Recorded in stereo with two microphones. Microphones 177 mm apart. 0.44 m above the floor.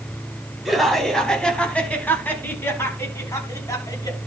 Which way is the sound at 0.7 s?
Centre (ahead or behind).